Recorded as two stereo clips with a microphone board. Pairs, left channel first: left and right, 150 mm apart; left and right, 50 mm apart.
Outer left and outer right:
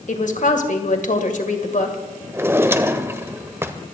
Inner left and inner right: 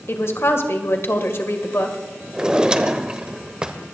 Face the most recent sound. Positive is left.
turn(degrees=-15)  # may be behind; listen again after turning